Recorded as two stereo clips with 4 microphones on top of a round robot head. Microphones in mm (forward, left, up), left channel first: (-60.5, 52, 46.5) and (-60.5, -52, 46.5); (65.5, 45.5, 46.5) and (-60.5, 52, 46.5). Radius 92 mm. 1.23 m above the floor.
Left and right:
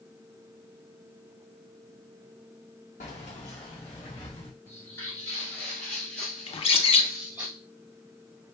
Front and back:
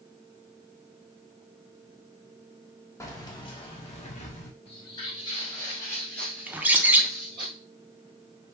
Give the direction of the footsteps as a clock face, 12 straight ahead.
11 o'clock.